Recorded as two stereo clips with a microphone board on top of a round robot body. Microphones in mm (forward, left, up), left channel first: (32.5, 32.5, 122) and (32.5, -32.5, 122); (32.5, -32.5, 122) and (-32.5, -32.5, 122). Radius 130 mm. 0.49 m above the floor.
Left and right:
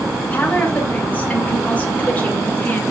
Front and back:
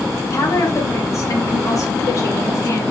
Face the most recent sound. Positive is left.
turn(degrees=25)